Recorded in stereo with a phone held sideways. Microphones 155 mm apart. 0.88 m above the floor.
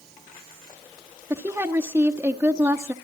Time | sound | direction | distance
1.3 | a woman speaking | 15° right (ahead or behind) | 1.0 m